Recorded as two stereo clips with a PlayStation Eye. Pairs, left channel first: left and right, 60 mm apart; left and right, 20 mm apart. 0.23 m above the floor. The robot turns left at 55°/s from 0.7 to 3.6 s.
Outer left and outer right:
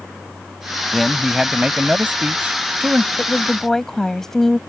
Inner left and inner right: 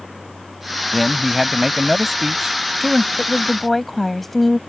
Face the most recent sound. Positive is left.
turn(degrees=5)  # may be behind; listen again after turning